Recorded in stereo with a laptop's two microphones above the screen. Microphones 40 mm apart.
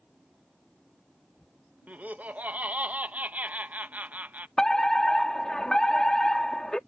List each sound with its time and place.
1.9 s laughter: 45° right (ahead or behind)
4.6 s a fire alarm: 20° left (ahead or behind)